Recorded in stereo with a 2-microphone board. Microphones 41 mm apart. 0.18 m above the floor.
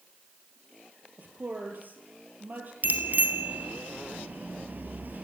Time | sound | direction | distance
1.2 | a woman speaking | 45° right (ahead or behind) | 5 m
2.8 | a bicycle bell | 45° right (ahead or behind) | 3 m